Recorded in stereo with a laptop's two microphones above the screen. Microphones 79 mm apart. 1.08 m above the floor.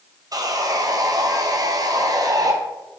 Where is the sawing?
50° right (ahead or behind), 0.6 m.